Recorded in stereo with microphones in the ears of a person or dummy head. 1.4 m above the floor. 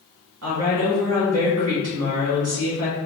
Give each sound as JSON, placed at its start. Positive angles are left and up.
{"t": 0.4, "sound": "a woman speaking", "side_deg": -75, "distance_m": 1.4}